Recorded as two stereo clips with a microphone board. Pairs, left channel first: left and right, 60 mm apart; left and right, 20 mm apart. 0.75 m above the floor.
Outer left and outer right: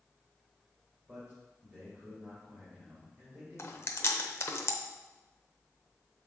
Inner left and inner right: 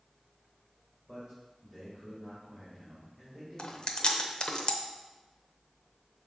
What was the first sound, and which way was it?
A man speaking, 30° right (ahead or behind).